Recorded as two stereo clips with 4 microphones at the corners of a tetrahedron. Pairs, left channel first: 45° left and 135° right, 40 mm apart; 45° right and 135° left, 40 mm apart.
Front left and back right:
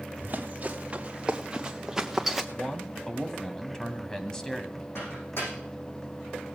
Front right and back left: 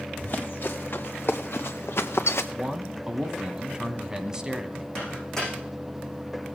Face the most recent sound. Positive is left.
turn(degrees=30)